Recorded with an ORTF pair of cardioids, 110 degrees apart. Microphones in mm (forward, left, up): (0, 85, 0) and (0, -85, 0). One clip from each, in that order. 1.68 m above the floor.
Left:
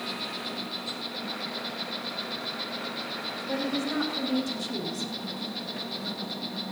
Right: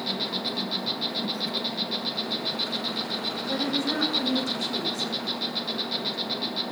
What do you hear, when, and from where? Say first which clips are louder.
0.0 s an insect: right 5 dB; 35° right, 0.9 m
3.5 s a woman speaking: right 3 dB; 5° left, 5 m